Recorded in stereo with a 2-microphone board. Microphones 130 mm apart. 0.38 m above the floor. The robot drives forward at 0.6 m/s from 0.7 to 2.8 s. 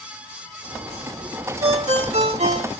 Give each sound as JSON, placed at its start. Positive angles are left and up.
{"t": 1.6, "sound": "a ringtone", "side_deg": -50, "distance_m": 1.2}